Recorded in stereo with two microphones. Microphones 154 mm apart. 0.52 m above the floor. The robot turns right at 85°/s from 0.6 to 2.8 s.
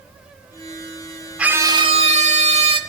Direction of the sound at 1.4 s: 170° right.